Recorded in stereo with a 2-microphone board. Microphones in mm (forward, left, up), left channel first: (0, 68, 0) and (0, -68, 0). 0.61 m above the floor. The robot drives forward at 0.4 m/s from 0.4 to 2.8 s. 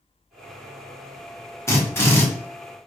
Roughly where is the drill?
Centre.